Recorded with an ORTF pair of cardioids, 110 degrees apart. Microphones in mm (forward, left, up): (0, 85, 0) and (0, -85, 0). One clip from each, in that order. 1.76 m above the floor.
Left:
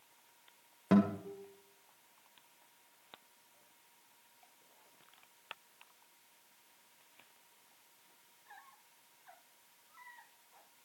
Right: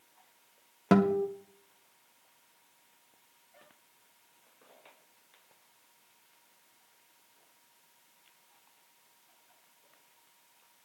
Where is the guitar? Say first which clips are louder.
Right 7 dB; 35° right, 1.5 m.